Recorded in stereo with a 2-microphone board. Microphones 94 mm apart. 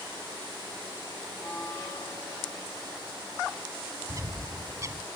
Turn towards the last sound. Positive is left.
turn(degrees=-35)  # may be behind; listen again after turning